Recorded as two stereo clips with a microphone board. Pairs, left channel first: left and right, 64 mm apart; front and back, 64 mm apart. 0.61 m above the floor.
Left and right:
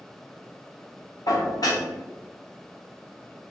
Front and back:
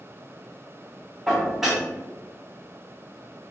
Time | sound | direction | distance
1.3 | dishes clattering | 95° left | 1.0 m